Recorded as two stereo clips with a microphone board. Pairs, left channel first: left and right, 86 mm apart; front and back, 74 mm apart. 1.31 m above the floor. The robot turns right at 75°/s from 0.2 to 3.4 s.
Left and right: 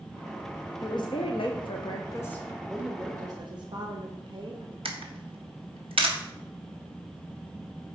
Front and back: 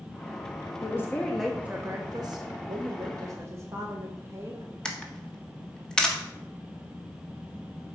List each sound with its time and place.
0.8 s a woman speaking: 45° left, 0.9 m; by 2.5 s 165° left, 0.9 m
2.7 s a woman speaking: straight behind, 0.9 m; by 4.8 s 125° right, 0.9 m
4.8 s a camera shutter: 80° right, 1.2 m